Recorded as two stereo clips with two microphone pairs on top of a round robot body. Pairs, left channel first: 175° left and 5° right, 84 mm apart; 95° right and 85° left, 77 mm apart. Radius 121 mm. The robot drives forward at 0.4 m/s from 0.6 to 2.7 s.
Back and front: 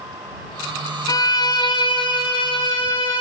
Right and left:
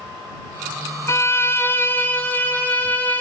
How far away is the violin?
About 0.6 m.